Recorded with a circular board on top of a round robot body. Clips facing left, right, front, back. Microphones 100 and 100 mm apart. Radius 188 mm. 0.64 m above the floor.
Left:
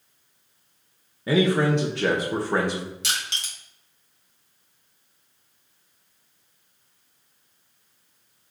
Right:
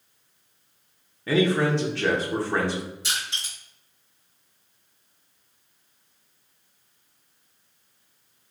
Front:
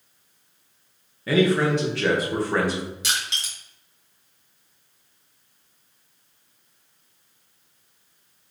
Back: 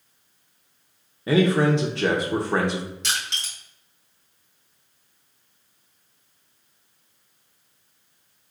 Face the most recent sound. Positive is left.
turn(degrees=80)